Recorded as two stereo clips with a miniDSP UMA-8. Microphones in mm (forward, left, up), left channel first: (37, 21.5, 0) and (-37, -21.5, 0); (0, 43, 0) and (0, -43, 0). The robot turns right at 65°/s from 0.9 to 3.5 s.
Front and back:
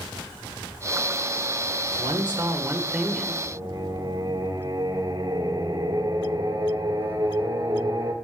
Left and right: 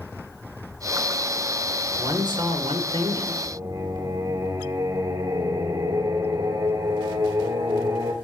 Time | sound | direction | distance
2.0 | a man speaking | 140° right | 1.9 m
3.5 | singing | 105° right | 2.5 m